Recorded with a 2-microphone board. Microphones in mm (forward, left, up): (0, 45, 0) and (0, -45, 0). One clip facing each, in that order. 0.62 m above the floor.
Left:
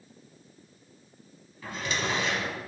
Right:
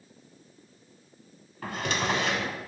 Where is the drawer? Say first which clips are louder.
Right 3 dB; 65° right (ahead or behind), 1.0 m.